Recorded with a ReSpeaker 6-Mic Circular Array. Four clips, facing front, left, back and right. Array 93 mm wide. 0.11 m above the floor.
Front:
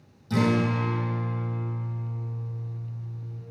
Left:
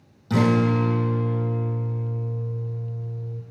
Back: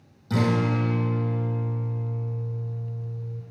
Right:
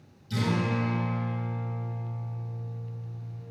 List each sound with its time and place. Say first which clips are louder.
0.3 s a guitar: left 9 dB, even; 110° left, 3.5 m